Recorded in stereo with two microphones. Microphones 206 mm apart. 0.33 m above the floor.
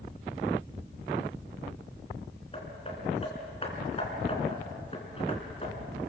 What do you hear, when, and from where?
2.5 s hammering: 30° left (ahead or behind), 3.5 m